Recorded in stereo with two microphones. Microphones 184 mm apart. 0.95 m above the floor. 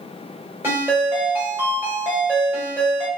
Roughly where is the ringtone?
Centre.